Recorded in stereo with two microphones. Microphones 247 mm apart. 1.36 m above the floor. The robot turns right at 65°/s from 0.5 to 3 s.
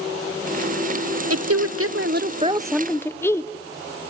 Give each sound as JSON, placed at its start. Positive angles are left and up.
{"t": 1.3, "sound": "a woman speaking", "azimuth_deg": -100, "distance_m": 0.8}